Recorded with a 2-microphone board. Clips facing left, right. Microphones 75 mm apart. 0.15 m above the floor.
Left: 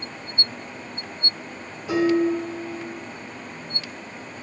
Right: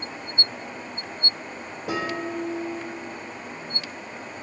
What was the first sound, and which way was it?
Dishes clattering, 60° right (ahead or behind).